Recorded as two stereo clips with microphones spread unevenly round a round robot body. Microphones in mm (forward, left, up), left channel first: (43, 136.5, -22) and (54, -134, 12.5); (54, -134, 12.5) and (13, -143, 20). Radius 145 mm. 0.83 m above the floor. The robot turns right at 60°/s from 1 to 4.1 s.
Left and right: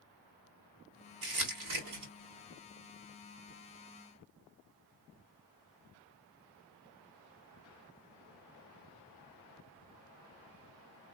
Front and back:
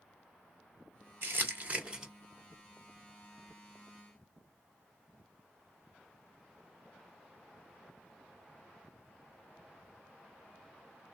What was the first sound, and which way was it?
Crumpling, 140° right.